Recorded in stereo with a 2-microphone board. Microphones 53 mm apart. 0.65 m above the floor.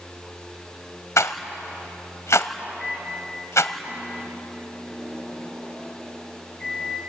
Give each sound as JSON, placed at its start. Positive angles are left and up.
{"t": 1.2, "sound": "a rattle", "side_deg": 80, "distance_m": 1.2}
{"t": 2.8, "sound": "a microwave", "side_deg": 0, "distance_m": 7.5}